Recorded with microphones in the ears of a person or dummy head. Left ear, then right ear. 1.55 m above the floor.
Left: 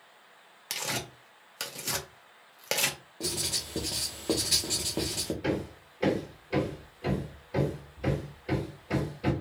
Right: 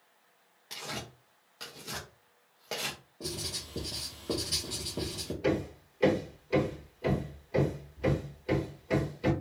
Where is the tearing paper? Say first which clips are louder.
Left 6 dB; 55° left (ahead or behind), 0.8 m.